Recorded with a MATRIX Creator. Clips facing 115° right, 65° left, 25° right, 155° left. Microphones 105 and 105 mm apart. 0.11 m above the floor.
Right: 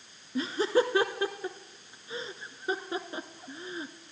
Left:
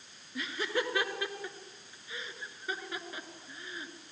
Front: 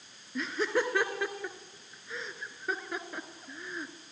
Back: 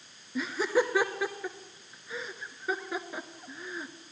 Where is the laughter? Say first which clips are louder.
Right 8 dB, back 3 dB; 120° right, 1.2 m.